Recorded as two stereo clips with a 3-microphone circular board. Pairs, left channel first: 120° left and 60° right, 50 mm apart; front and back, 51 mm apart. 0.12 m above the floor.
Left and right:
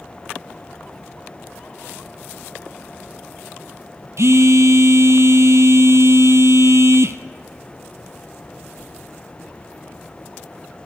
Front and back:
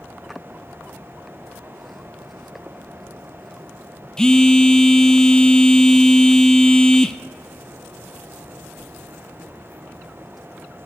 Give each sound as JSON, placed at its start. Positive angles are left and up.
{"t": 4.2, "sound": "a phone buzzing", "azimuth_deg": -80, "distance_m": 0.5}